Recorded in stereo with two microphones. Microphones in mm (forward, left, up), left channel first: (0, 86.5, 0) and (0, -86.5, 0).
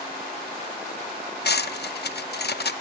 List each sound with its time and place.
1.4 s cutlery clinking: 70° left (ahead or behind), 0.5 m